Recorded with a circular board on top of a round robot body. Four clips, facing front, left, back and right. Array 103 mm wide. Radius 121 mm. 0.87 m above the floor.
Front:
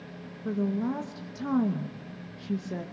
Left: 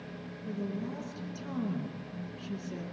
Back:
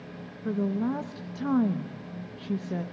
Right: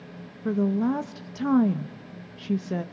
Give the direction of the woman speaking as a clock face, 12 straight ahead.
3 o'clock.